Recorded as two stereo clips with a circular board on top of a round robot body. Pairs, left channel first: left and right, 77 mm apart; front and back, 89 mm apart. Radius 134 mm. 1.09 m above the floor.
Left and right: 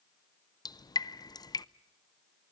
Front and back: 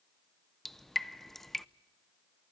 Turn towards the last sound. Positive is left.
turn(degrees=90)